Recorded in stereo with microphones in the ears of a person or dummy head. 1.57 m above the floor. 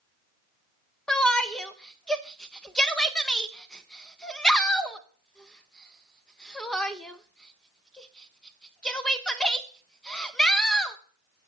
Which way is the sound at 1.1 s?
5° left (ahead or behind).